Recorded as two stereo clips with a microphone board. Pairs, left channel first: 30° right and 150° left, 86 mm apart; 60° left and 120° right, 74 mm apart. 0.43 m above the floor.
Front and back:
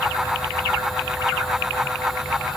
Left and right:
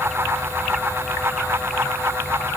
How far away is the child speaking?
I don't hear a child speaking.